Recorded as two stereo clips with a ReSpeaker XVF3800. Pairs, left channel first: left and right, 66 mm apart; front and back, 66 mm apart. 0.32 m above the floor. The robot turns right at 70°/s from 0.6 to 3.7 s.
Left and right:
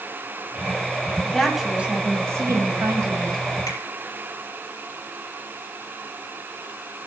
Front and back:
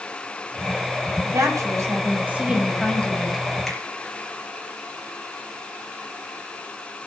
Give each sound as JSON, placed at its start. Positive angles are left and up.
{"t": 1.2, "sound": "a woman speaking", "azimuth_deg": 165, "distance_m": 2.0}
{"t": 3.7, "sound": "a finger snap", "azimuth_deg": 80, "distance_m": 4.5}